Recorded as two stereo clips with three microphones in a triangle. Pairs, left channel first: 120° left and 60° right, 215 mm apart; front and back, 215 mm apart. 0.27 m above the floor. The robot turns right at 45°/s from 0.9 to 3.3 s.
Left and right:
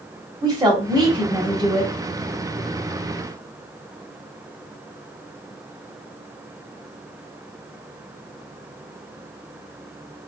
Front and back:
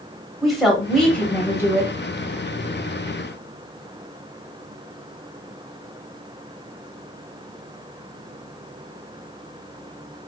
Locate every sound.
0.4 s a woman speaking: 90° right, 1.1 m; by 1.9 s 45° right, 1.1 m